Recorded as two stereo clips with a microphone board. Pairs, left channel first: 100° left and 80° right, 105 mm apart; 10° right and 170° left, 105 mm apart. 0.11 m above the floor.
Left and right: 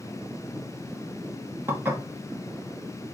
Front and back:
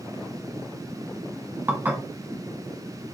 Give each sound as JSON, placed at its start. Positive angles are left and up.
{"t": 1.7, "sound": "dishes clattering", "azimuth_deg": -135, "distance_m": 1.1}